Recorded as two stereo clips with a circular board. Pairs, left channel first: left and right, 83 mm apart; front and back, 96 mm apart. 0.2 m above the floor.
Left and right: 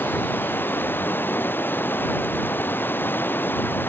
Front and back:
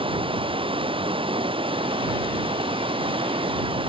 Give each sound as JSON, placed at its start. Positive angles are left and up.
{"t": 0.0, "sound": "running water", "azimuth_deg": 155}